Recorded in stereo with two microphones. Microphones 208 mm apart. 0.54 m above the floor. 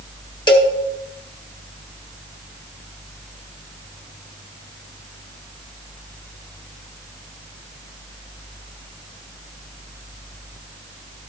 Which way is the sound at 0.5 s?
20° left (ahead or behind).